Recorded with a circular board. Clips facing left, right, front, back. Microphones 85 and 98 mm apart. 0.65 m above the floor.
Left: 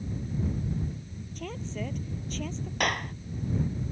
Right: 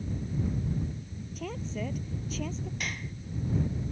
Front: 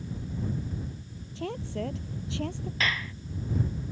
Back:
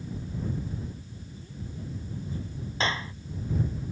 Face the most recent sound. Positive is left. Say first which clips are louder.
# left 9 dB, back 2 dB
turn(degrees=120)